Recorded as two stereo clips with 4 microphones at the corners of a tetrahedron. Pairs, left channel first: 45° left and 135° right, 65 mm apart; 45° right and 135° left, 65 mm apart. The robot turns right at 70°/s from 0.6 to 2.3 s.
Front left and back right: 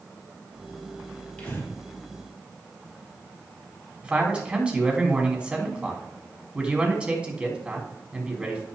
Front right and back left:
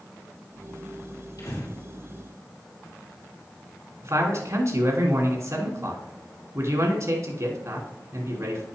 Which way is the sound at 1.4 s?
30° right.